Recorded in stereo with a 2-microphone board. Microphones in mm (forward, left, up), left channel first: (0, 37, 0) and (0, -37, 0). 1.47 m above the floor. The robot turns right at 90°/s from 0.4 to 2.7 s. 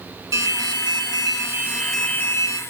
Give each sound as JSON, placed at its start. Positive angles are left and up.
{"t": 0.3, "sound": "an alarm", "azimuth_deg": -135, "distance_m": 1.8}